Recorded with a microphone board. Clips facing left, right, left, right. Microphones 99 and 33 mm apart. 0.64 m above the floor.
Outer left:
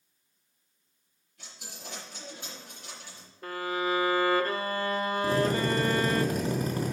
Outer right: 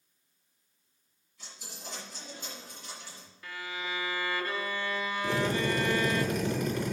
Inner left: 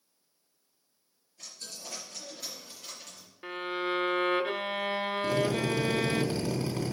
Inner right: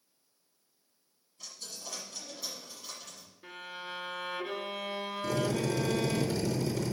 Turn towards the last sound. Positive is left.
turn(degrees=35)  # may be behind; listen again after turning